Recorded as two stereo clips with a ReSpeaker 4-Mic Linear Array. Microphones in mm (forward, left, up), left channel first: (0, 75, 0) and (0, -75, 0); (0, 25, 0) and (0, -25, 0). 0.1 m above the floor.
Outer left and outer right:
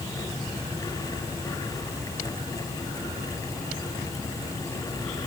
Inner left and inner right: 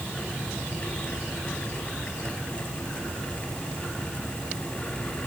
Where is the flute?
No flute in this recording.